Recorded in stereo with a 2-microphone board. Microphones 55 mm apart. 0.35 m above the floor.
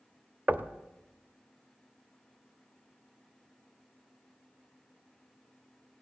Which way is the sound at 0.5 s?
30° right (ahead or behind).